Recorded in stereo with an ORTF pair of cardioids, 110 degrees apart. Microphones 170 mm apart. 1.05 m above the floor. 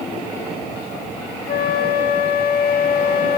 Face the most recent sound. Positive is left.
turn(degrees=60)